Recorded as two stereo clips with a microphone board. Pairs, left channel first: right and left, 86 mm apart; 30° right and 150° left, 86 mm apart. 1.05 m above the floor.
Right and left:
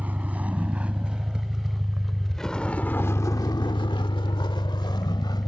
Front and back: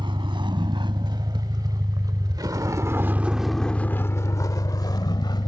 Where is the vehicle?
160° left; by 5.5 s 55° right.